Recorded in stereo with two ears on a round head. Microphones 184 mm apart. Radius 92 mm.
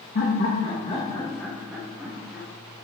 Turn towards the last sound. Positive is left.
turn(degrees=-20)  # may be behind; listen again after turning